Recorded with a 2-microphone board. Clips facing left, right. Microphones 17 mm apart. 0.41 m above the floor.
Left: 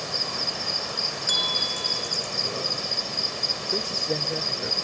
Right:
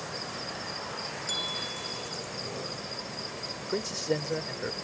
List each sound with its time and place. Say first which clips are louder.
0.0 s an insect: left 10 dB; 50° left (ahead or behind)
1.3 s a bell: left 9 dB; 30° left (ahead or behind)
3.7 s a man speaking: left 5 dB; 10° right (ahead or behind)